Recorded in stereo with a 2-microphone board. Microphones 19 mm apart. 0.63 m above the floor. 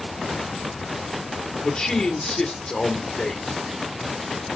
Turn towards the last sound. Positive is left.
turn(degrees=55)  # may be behind; listen again after turning